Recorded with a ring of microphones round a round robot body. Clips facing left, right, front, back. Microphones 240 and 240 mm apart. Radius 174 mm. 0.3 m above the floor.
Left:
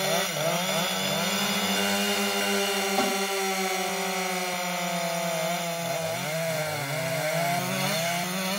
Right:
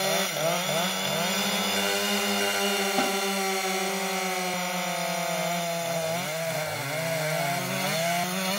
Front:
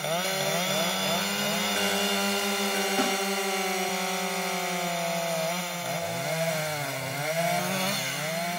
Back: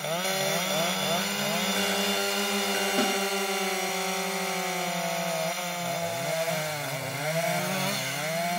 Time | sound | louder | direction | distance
3.0 | a snare drum | left 1 dB, back 2 dB | 170° right | 0.7 m